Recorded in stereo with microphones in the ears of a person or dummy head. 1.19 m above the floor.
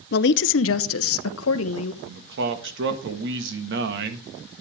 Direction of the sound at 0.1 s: 50° left (ahead or behind).